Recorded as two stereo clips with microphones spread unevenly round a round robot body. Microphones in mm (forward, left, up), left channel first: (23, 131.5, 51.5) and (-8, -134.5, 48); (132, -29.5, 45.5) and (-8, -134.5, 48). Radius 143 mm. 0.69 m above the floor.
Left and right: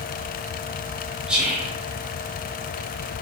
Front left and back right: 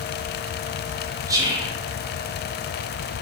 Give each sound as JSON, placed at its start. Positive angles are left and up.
{"t": 1.3, "sound": "whispering", "azimuth_deg": -175, "distance_m": 0.6}